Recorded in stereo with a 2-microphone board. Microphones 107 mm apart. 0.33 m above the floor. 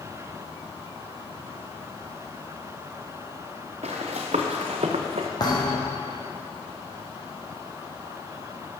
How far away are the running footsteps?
About 1.8 m.